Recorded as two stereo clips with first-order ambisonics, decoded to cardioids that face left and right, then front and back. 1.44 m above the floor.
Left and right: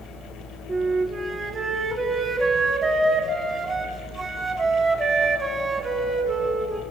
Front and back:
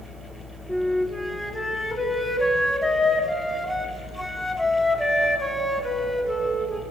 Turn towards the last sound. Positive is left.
turn(degrees=-80)